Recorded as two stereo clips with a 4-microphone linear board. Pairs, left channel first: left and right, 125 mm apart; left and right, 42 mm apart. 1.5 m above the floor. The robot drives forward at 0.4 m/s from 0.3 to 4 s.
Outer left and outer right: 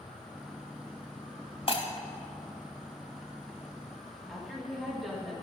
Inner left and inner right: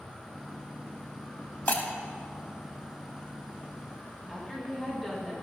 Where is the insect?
40° left (ahead or behind), 3 m; by 5.4 s 60° left (ahead or behind), 2.5 m.